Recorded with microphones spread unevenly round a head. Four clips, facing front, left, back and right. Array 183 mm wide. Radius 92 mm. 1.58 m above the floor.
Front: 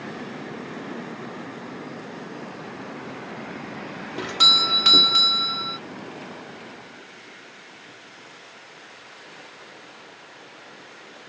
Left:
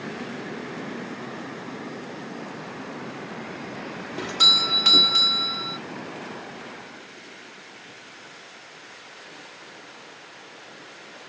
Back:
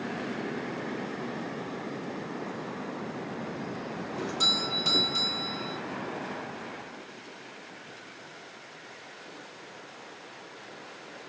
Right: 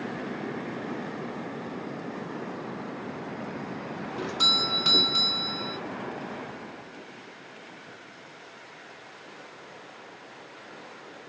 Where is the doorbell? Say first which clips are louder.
Left 3 dB, front 8 dB; 30° left, 0.6 m.